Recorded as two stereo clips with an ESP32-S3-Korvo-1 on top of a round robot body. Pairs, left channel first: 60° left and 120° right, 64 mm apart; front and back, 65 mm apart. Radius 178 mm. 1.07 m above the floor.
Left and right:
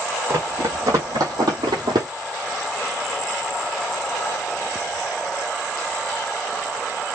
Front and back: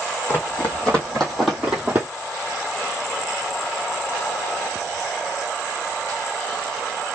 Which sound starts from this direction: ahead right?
Running footsteps, at 0.3 s.